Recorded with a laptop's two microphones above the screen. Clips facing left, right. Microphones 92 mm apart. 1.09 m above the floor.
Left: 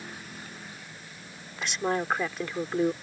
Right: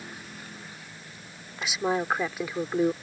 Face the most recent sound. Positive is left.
turn(degrees=-5)  # may be behind; listen again after turning